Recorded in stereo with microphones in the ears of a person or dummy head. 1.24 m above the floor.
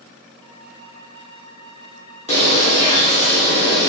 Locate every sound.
0.4 s a flute: 20° right (ahead or behind), 1.4 m
2.3 s a bird: 30° left (ahead or behind), 0.6 m